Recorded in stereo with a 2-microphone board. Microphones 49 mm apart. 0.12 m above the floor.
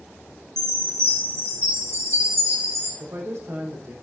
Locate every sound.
0.6 s a chime: 65° right (ahead or behind), 4 m
3.0 s a man speaking: 65° right (ahead or behind), 6.5 m